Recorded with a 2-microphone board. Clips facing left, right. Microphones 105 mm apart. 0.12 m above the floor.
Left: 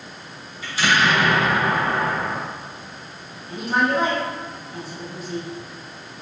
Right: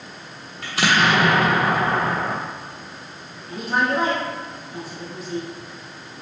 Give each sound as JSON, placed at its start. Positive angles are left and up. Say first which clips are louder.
{"t": 0.6, "sound": "an explosion", "louder": "right 1 dB", "side_deg": -75, "distance_m": 0.6}
{"t": 3.5, "sound": "a woman speaking", "louder": "left 1 dB", "side_deg": 0, "distance_m": 1.6}